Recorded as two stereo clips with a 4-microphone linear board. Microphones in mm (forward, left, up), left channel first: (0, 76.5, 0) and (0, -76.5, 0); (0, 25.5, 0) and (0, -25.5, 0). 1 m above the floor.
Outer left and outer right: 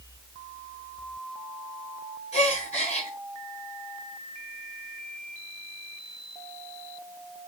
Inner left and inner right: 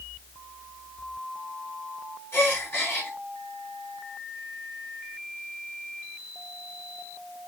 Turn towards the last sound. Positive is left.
turn(degrees=45)  # may be behind; listen again after turning